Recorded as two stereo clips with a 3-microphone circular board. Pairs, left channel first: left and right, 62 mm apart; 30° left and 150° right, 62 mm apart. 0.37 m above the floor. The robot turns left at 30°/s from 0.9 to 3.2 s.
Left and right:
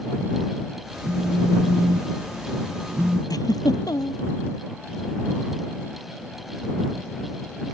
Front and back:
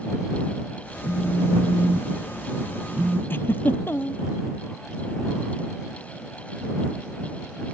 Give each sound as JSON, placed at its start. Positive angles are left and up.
{"t": 1.0, "sound": "a phone buzzing", "azimuth_deg": -70}
{"t": 3.3, "sound": "a giggle", "azimuth_deg": 85}